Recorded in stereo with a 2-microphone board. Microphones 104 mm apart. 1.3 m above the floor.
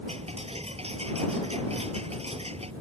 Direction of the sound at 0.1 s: 80° right.